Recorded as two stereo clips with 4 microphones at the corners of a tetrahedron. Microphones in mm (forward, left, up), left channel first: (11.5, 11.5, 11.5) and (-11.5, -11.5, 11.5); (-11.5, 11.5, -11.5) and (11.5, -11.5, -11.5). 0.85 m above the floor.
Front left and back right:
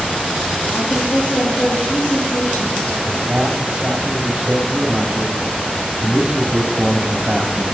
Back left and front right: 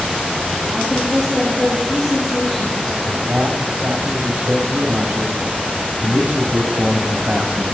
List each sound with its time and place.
0.7 s a woman speaking: 35° left, 4.5 m
3.1 s a man speaking: 70° right, 2 m